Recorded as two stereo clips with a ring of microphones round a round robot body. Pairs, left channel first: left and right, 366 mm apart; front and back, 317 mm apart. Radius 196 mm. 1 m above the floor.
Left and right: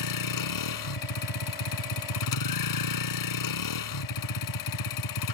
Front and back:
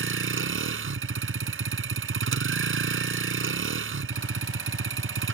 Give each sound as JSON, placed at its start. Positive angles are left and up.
{"t": 0.0, "sound": "a vehicle", "azimuth_deg": 130}